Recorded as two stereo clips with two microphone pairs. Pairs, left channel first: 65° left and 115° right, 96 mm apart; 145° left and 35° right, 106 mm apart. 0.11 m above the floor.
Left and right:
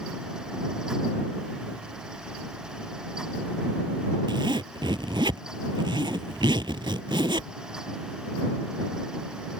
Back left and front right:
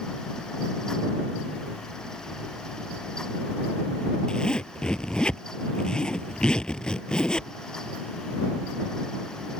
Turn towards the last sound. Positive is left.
turn(degrees=-130)